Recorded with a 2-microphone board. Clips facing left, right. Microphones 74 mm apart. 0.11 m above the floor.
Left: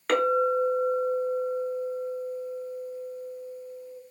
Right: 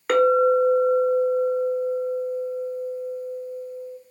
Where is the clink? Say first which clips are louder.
Right 6 dB; 10° right (ahead or behind), 0.9 m.